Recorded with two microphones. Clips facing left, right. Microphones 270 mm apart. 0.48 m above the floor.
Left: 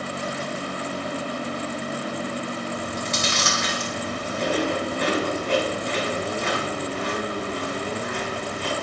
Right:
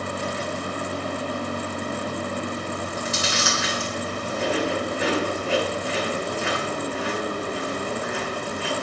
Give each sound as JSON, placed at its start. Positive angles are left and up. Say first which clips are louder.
{"t": 2.7, "sound": "chewing", "louder": "even", "side_deg": -5, "distance_m": 3.5}